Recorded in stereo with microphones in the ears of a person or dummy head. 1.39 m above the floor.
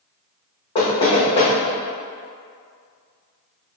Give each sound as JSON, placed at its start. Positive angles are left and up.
{"t": 0.8, "sound": "knocking", "side_deg": 25, "distance_m": 1.1}